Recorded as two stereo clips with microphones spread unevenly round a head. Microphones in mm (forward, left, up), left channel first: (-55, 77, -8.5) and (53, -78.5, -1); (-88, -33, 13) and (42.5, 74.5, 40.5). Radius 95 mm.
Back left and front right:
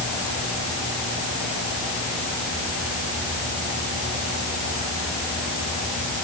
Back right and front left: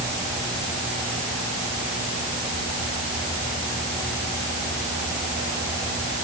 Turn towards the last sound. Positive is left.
No sound to turn to.